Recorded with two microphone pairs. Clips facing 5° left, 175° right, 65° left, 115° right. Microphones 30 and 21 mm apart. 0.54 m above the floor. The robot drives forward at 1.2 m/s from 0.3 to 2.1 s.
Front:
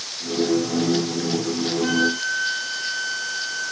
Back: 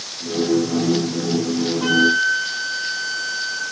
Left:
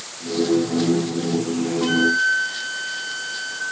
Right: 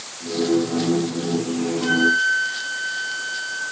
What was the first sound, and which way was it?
A flute, 135° left.